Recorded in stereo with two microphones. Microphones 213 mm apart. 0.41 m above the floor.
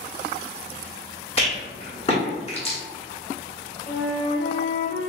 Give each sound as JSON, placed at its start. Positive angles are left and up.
{"t": 1.4, "sound": "a rattle", "side_deg": 25, "distance_m": 1.3}
{"t": 3.9, "sound": "a flute", "side_deg": 50, "distance_m": 1.3}